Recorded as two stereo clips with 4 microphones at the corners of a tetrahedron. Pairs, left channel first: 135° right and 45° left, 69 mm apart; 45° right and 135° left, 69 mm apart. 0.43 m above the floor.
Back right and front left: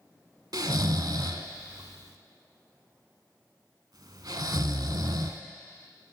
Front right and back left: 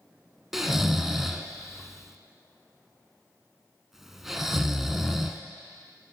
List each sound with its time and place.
0.5 s snoring: 50° left, 0.6 m